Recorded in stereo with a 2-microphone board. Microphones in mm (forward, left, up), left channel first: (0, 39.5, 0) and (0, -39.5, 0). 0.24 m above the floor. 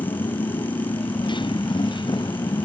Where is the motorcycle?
75° left (ahead or behind); by 2.6 s 70° left (ahead or behind).